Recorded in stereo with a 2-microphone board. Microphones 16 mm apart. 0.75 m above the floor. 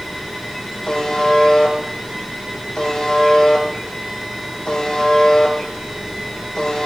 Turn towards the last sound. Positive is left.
turn(degrees=50)  # may be behind; listen again after turning